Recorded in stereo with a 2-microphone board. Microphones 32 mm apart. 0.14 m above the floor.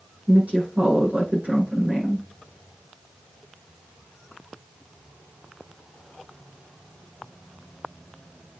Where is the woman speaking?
45° right (ahead or behind), 6.5 m.